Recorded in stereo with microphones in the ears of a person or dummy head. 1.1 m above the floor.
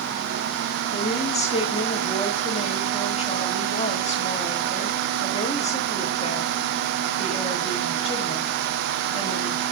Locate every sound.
0.9 s a woman speaking: 35° left (ahead or behind), 1.6 m